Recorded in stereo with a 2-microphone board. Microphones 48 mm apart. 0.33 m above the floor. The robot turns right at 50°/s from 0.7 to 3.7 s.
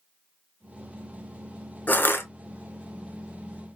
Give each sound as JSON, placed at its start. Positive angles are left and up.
{"t": 1.9, "sound": "crushing", "side_deg": 35, "distance_m": 0.6}